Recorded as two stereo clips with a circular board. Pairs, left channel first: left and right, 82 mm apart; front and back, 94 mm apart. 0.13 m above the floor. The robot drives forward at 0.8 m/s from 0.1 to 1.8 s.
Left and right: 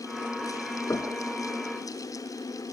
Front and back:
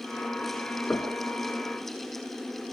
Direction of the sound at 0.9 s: 65° left.